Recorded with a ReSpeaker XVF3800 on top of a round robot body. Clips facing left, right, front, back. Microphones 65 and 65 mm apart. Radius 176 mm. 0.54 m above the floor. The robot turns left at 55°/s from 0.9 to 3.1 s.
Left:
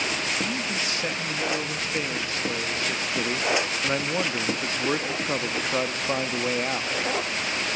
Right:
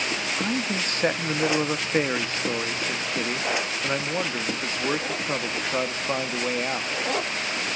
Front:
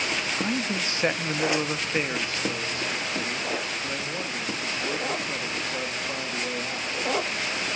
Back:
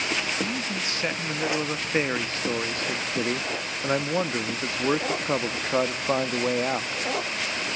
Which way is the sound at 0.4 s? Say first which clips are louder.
Right 2 dB, front 2 dB; 55° right.